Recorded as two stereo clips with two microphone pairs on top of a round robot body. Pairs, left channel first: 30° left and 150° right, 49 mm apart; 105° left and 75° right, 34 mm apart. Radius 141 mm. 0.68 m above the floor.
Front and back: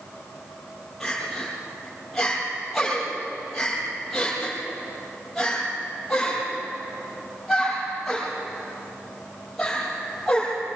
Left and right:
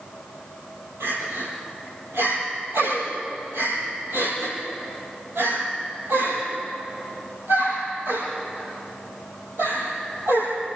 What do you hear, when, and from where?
1.0 s crying: 60° right, 9 m